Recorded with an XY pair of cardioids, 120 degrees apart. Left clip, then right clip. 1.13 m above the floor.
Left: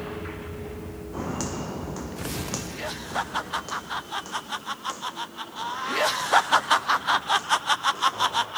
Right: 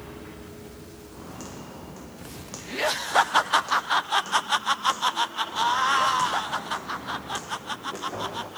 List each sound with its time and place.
1.1 s footsteps: 65° left, 4 m; by 8.5 s 50° right, 7 m